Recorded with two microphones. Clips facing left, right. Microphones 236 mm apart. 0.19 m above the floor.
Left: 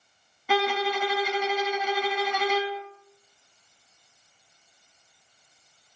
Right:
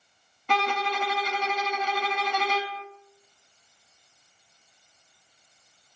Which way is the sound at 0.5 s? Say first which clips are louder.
Left 4 dB; 10° left (ahead or behind).